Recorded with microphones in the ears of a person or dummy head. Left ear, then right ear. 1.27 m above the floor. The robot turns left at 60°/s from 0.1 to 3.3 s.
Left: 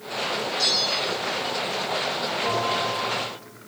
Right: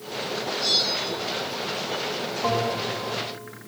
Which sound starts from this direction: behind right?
A bell, at 2.4 s.